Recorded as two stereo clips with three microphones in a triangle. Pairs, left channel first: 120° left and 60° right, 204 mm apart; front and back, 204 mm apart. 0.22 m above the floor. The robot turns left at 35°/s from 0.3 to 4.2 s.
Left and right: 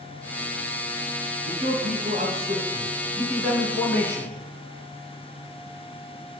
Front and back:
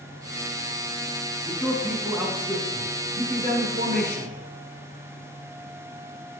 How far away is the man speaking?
About 2.5 m.